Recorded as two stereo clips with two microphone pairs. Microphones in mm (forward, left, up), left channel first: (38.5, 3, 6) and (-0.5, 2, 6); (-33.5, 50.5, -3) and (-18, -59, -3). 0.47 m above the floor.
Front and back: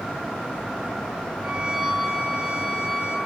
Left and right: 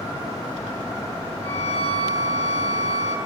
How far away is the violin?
About 6.5 m.